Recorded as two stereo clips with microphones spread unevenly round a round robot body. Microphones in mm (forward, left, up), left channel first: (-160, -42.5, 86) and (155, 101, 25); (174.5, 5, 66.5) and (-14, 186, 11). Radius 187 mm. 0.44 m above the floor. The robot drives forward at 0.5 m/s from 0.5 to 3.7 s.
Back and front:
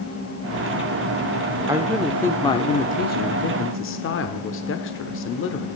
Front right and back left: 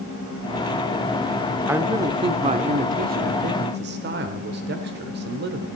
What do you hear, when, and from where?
1.7 s a man speaking: 80° left, 1.0 m; by 5.7 s 150° left, 1.4 m